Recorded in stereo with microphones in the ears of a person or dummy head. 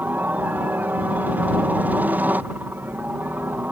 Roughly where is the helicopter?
Centre.